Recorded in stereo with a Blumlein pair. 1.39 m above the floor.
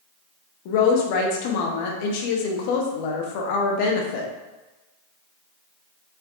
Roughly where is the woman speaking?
Ahead left.